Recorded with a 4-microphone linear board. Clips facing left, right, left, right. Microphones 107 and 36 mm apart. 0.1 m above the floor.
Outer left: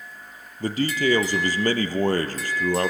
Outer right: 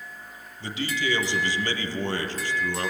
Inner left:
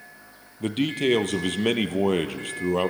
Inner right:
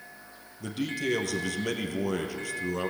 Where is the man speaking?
50° left (ahead or behind), 1.9 m.